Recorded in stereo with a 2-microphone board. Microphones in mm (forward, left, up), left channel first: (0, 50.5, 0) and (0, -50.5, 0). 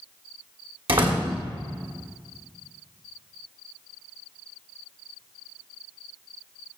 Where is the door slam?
65° right (ahead or behind), 2.5 m.